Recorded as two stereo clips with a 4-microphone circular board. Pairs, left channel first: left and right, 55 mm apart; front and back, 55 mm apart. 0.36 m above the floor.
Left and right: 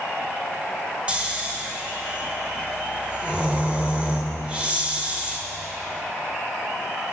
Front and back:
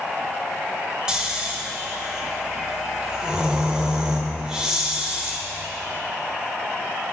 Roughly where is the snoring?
Behind right.